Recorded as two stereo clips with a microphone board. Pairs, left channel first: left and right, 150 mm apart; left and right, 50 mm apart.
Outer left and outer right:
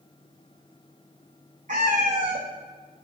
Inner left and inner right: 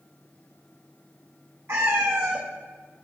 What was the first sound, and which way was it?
A cat meowing, 55° right (ahead or behind).